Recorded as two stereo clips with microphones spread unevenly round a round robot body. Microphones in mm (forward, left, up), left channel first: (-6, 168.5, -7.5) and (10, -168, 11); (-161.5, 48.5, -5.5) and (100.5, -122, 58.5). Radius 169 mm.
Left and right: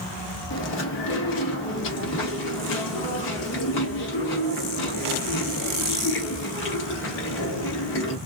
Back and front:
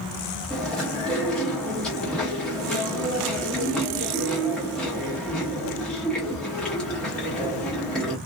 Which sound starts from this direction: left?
Chewing, at 0.5 s.